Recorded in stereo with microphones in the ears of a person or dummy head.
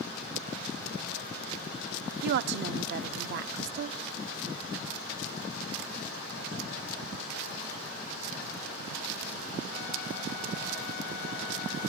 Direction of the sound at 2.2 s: 55° right (ahead or behind).